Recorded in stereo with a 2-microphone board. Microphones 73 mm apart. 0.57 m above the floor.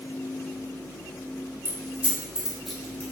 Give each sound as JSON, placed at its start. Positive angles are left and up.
{"t": 1.6, "sound": "keys jangling", "side_deg": -35, "distance_m": 1.0}